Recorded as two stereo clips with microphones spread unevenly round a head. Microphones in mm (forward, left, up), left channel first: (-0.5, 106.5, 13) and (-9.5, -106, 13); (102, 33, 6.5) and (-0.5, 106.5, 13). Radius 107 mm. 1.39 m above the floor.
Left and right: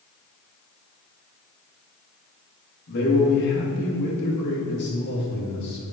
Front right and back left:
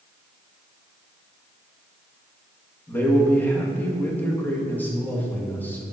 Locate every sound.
2.9 s a man speaking: 40° left, 1.8 m